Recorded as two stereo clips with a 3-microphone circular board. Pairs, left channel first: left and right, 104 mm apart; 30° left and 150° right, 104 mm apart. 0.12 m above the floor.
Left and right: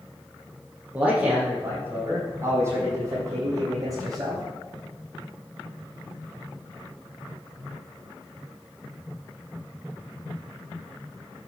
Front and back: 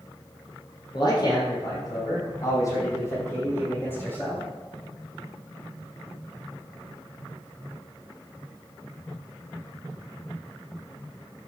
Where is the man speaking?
15° right, 4.5 m; by 4.4 s 40° right, 5.5 m.